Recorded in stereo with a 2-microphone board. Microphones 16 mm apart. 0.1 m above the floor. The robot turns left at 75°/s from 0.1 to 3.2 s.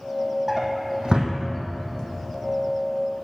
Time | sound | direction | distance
0.5 | a drawer | 10° right (ahead or behind) | 1.5 m